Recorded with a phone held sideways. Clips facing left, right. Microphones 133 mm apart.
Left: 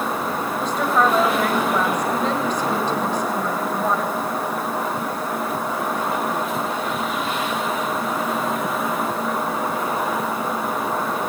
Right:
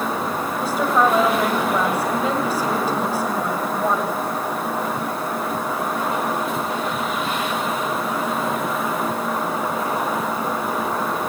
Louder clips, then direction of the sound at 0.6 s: Right 1 dB; 10° right (ahead or behind).